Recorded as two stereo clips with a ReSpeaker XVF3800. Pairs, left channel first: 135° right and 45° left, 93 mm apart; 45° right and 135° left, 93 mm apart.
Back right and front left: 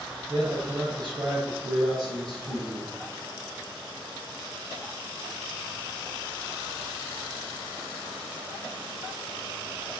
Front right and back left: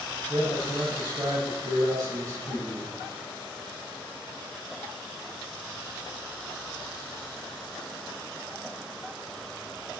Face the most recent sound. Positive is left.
turn(degrees=90)